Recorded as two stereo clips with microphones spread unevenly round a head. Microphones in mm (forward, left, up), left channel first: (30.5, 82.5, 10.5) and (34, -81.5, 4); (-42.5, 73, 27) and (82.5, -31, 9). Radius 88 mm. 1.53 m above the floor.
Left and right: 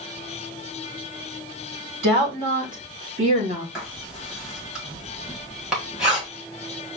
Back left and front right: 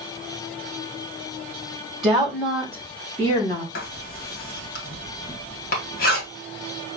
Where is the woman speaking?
125° right, 2.5 m; by 3.6 s 150° right, 1.8 m.